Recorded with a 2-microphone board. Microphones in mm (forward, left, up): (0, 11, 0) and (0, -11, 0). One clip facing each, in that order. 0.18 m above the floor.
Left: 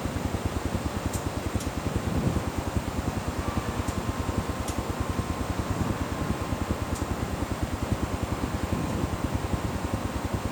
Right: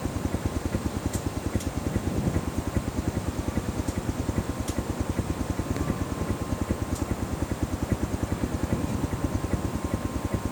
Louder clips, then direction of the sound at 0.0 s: Even; 60° right (ahead or behind).